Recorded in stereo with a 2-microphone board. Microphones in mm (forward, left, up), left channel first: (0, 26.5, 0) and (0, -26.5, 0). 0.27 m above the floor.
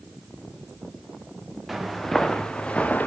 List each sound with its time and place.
1.7 s footsteps: centre (ahead or behind), 2 m; by 3.1 s 30° left (ahead or behind), 1.9 m